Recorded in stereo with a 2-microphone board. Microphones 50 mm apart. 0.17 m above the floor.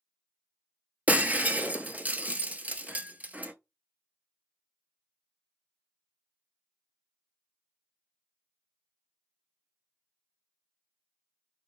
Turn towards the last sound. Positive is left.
turn(degrees=-30)  # may be behind; listen again after turning